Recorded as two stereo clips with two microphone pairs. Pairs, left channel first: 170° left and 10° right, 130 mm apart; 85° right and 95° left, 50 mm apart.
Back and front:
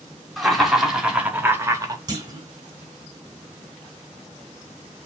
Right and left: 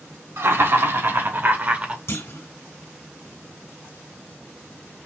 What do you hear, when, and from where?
0.4 s laughter: 85° left, 1.5 m; by 2.0 s 40° left, 0.8 m
2.1 s a clunk: 65° right, 1.3 m